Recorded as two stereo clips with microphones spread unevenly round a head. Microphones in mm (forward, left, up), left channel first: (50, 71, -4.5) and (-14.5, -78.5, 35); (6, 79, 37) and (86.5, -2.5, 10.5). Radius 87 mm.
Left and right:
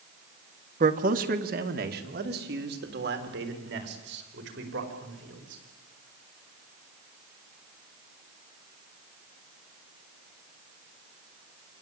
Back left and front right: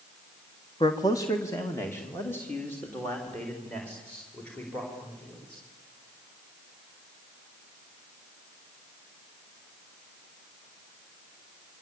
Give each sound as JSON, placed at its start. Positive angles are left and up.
{"t": 0.8, "sound": "a man speaking", "azimuth_deg": -160, "distance_m": 1.3}